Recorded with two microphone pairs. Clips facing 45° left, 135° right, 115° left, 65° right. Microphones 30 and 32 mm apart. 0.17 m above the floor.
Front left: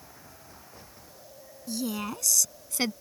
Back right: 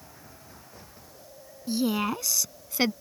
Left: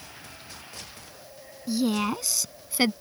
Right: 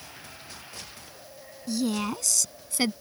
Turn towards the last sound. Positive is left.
turn(degrees=160)